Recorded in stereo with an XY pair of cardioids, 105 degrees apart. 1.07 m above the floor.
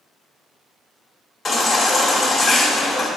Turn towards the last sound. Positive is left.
turn(degrees=30)